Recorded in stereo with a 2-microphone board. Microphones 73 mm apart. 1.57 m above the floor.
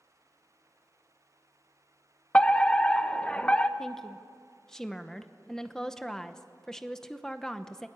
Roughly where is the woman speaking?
Centre.